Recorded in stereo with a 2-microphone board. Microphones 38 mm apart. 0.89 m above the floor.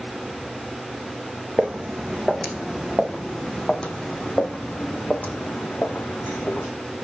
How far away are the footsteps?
About 2 m.